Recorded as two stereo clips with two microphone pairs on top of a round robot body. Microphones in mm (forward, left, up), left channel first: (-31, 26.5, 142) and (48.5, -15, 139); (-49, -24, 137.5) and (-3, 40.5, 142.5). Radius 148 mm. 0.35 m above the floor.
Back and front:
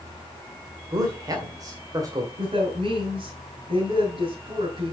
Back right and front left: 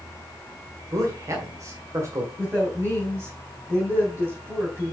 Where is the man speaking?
10° left, 2 m.